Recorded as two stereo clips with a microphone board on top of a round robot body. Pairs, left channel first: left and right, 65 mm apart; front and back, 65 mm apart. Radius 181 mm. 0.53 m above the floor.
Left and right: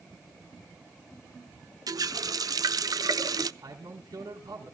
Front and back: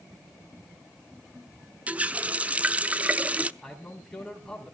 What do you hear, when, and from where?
1.9 s a running tap: 110° right, 0.7 m
3.6 s a man speaking: 85° right, 4.5 m